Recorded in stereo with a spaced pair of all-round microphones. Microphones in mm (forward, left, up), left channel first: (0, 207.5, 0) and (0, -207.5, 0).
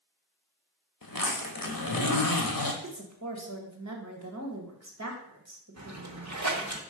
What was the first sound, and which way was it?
A zipper, 50° left (ahead or behind).